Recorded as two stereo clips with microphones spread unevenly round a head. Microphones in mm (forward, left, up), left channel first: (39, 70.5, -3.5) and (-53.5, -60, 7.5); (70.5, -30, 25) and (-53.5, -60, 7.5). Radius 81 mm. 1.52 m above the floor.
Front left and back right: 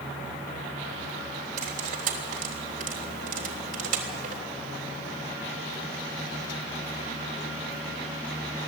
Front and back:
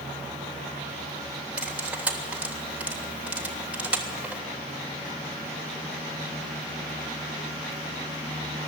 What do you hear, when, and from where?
1.6 s cutlery clinking: 85° right, 3 m